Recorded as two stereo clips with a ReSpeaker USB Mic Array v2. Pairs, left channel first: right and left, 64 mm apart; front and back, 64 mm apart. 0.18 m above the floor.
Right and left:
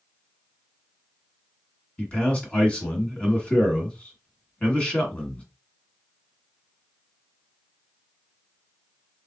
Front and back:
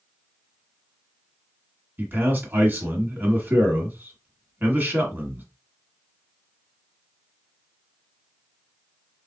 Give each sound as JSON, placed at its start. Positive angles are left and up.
{"t": 2.0, "sound": "a man speaking", "azimuth_deg": -150, "distance_m": 1.5}